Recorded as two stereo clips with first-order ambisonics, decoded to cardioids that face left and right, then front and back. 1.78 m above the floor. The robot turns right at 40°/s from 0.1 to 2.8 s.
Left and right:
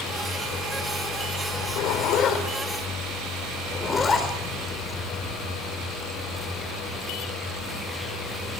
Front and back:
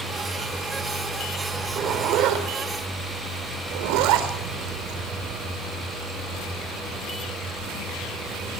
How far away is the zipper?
About 4 m.